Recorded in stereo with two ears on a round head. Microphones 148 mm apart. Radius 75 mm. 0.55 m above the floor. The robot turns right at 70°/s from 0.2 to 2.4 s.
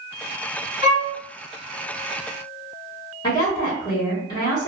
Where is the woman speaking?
25° left (ahead or behind), 1.2 m.